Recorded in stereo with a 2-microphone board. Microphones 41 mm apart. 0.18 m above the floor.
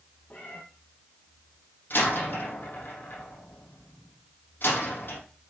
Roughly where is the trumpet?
No trumpet in this recording.